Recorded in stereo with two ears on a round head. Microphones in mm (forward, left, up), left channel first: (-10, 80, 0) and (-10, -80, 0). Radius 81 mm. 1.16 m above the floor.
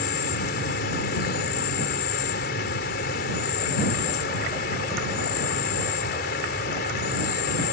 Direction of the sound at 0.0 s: 55° left (ahead or behind).